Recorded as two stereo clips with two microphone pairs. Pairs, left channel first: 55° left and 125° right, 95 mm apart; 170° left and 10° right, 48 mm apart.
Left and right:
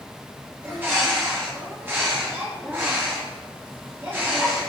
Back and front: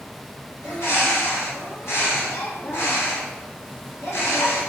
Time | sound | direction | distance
0.6 | a bird | 170° left | 1.5 m